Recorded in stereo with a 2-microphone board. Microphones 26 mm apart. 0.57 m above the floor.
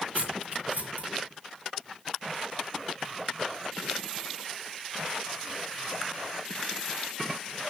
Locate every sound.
0.1 s cutlery clinking: 70° right (ahead or behind), 5.5 m